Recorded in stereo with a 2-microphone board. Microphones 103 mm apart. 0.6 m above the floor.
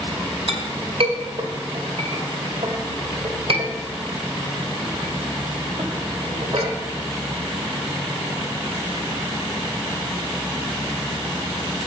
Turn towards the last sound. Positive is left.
turn(degrees=-65)  # may be behind; listen again after turning